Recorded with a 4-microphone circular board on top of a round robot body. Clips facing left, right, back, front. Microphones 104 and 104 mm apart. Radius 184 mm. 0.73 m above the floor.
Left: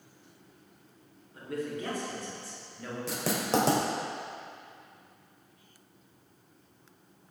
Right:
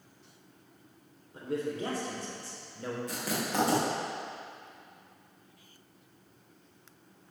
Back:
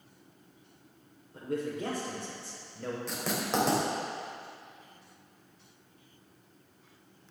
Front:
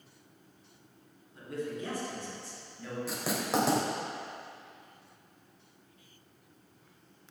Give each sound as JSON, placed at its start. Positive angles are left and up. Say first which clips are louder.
{"t": 1.3, "sound": "a man speaking", "louder": "right 2 dB, back 3 dB", "azimuth_deg": -150, "distance_m": 3.5}
{"t": 3.1, "sound": "writing", "louder": "left 9 dB, front 2 dB", "azimuth_deg": 85, "distance_m": 3.0}